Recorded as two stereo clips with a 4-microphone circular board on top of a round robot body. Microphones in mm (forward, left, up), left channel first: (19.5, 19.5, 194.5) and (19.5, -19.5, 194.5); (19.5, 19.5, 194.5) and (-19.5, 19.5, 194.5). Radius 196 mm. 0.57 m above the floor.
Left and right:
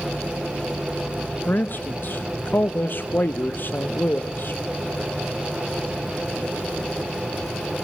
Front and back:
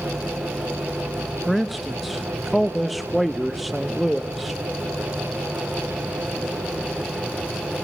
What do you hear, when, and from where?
1.5 s a man speaking: 90° left, 0.8 m